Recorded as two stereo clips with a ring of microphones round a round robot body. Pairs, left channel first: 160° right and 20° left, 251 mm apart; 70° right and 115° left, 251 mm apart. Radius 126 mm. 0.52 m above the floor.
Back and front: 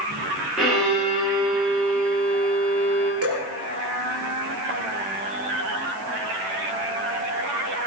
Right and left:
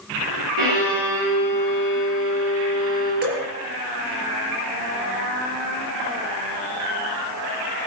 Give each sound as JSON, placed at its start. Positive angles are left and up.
{"t": 0.6, "sound": "a violin", "azimuth_deg": 110, "distance_m": 10.0}
{"t": 3.2, "sound": "dripping", "azimuth_deg": 60, "distance_m": 5.0}